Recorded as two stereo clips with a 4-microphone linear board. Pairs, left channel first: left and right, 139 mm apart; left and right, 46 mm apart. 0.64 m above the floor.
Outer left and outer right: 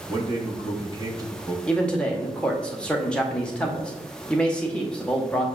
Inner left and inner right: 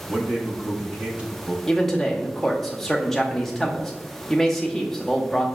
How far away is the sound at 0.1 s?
About 0.9 m.